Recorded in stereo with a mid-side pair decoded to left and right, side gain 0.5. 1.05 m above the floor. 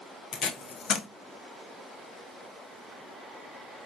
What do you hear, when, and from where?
0.3 s tape being pulled: 55° left, 0.6 m